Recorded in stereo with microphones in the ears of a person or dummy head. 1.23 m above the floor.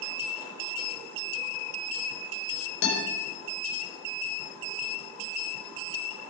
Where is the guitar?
65° left (ahead or behind), 5 m.